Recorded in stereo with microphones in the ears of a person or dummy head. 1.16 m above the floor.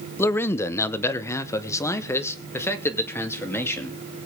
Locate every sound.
0.2 s a man speaking: 15° left (ahead or behind), 0.7 m